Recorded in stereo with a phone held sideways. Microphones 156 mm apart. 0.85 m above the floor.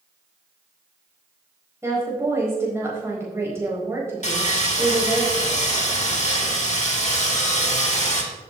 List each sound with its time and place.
1.8 s a woman speaking: 15° right (ahead or behind), 4.5 m
4.2 s sawing: 50° left (ahead or behind), 2 m